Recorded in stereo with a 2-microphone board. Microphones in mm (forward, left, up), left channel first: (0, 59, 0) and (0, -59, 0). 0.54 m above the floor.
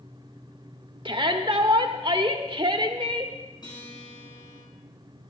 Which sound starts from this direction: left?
A guitar, at 3.6 s.